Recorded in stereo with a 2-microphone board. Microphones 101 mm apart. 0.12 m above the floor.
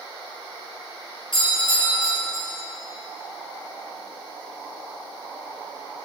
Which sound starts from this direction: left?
A doorbell, at 1.3 s.